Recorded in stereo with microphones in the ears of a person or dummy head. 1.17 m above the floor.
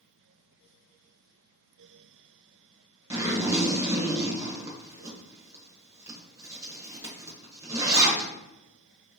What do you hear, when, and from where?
3.1 s a zipper: 15° right (ahead or behind), 1.1 m